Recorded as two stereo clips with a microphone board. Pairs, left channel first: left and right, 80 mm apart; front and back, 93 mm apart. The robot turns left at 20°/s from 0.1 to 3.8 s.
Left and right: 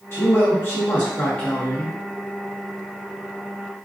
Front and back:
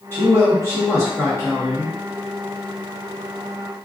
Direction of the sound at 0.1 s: 55° left.